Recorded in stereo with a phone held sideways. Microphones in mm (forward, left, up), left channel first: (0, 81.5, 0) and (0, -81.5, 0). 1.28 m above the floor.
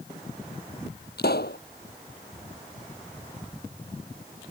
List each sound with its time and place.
1.2 s a pop: 80° left